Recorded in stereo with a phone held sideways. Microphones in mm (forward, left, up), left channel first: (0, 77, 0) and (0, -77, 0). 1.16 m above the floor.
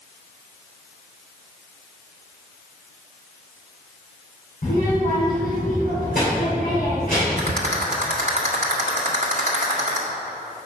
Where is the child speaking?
70° left (ahead or behind), 2.5 m.